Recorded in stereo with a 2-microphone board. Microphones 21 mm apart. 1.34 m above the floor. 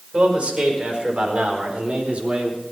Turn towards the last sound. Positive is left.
turn(degrees=-65)  # may be behind; listen again after turning